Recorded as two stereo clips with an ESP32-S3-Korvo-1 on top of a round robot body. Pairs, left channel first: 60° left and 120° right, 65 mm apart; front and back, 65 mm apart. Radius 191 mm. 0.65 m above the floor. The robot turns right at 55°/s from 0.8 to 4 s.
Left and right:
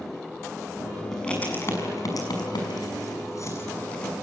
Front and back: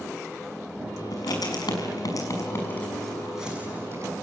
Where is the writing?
25° right, 5.5 m; by 4.1 s 135° left, 5.5 m.